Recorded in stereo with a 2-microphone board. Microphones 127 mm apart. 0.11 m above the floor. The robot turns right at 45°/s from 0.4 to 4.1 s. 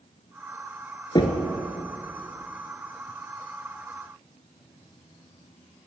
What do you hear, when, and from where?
1.1 s knocking: 35° left (ahead or behind), 1.0 m; by 1.5 s 30° left (ahead or behind), 1.0 m